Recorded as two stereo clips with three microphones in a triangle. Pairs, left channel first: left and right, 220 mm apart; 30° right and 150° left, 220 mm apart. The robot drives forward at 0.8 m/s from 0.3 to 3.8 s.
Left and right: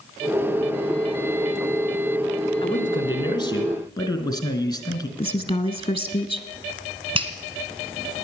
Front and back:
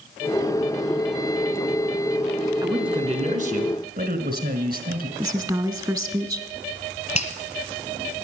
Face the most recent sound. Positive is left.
turn(degrees=-50)